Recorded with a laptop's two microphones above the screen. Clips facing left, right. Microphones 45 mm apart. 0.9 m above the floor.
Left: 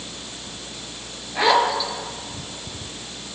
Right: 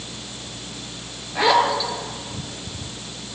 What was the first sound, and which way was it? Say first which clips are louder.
A zipper: even; centre (ahead or behind).